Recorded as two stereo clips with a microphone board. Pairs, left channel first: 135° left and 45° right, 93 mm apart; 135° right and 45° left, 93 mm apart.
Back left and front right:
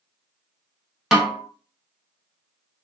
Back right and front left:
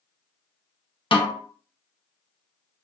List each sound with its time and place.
1.1 s a snare drum: 130° right, 0.7 m